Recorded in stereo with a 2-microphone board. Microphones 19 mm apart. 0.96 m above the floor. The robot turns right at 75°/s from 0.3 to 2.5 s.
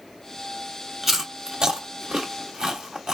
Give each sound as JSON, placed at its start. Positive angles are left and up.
{"t": 1.0, "sound": "chewing", "side_deg": -10, "distance_m": 1.2}